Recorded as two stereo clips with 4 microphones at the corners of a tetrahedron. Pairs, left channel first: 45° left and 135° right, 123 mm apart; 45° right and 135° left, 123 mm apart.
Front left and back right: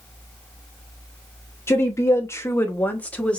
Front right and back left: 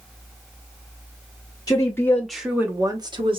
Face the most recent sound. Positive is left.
turn(degrees=125)